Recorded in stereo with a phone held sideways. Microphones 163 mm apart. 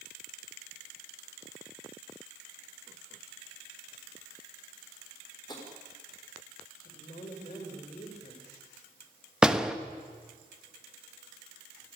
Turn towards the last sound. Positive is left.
turn(degrees=-5)  # may be behind; listen again after turning